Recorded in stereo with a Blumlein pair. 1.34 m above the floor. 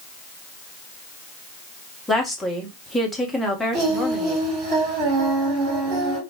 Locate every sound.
2.1 s a woman speaking: 5° left, 1.1 m
3.7 s singing: 35° right, 1.9 m